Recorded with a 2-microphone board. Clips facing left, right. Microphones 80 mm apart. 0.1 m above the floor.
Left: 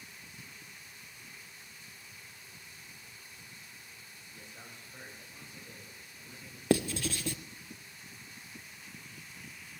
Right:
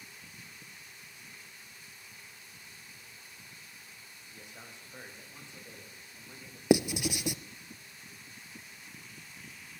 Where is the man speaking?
15° right (ahead or behind), 6.5 m; by 6.6 s 30° right (ahead or behind), 9.5 m.